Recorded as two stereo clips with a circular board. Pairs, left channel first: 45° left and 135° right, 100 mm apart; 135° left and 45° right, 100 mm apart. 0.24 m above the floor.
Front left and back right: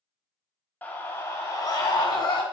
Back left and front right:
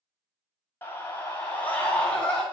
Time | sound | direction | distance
0.8 | a scream | 95° left | 1.1 m